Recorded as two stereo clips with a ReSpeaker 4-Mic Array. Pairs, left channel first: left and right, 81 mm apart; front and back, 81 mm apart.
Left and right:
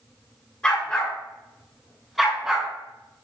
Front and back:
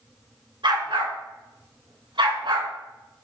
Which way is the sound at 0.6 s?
165° left.